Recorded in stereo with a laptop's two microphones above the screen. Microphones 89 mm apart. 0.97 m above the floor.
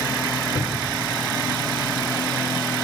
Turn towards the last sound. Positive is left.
turn(degrees=55)  # may be behind; listen again after turning